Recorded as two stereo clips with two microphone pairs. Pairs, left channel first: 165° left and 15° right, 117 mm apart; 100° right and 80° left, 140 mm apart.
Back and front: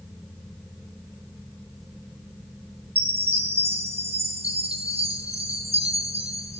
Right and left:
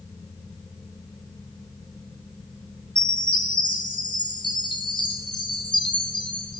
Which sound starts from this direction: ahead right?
A chime, at 3.0 s.